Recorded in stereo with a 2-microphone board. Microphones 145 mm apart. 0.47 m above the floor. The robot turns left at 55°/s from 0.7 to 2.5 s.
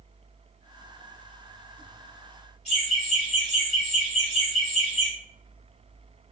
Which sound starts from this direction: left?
Laughter, at 2.6 s.